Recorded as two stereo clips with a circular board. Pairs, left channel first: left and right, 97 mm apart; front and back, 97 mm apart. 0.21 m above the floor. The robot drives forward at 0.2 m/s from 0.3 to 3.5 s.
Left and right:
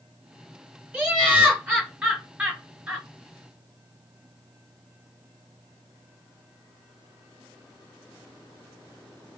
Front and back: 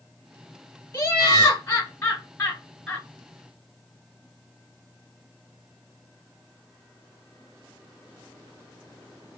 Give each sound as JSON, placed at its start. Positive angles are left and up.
{"t": 0.9, "sound": "laughter", "azimuth_deg": -20, "distance_m": 1.2}